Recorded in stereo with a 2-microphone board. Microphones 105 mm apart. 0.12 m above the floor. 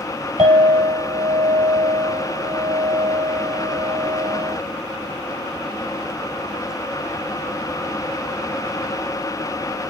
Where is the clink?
65° right (ahead or behind), 2.5 m.